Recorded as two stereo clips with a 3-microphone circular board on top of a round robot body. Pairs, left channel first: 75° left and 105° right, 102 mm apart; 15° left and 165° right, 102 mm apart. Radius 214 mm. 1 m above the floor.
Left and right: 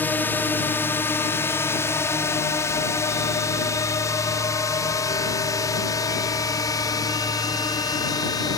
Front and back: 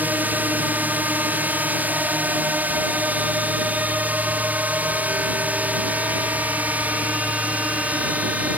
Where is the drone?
135° left; by 8.6 s 120° left.